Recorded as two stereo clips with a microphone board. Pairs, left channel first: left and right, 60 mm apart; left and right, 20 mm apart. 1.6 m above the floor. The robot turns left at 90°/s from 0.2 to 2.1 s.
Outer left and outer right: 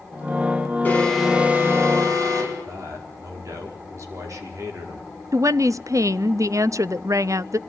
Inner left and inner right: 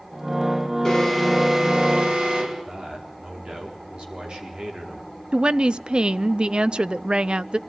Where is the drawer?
I don't hear a drawer.